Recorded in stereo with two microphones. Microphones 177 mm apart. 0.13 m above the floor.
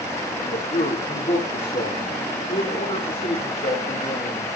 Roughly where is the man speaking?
Left.